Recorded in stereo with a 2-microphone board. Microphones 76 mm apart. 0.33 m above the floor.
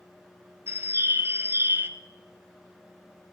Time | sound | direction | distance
0.7 | a bird | 30° right (ahead or behind) | 0.6 m